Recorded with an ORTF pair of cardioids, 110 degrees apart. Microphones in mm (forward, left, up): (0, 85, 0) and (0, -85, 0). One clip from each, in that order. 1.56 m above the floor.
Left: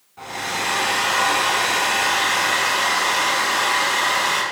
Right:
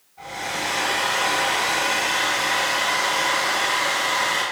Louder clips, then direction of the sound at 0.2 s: Left 2 dB; 55° left.